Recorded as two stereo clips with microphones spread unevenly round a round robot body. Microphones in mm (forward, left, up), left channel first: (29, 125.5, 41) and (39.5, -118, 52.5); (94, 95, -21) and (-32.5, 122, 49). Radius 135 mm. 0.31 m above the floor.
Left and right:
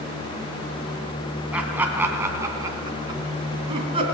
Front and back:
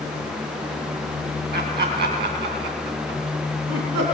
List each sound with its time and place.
1.5 s laughter: 175° right, 2.5 m; by 4.0 s 155° right, 3.5 m